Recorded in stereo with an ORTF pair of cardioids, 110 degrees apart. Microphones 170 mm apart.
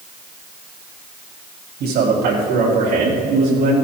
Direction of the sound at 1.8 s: 70° right.